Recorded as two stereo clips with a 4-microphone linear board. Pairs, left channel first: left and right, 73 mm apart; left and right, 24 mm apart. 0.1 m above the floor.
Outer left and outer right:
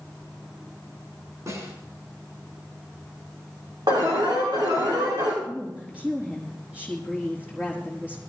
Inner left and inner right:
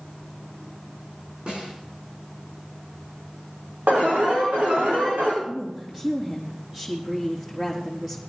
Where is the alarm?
80° right, 6.5 m.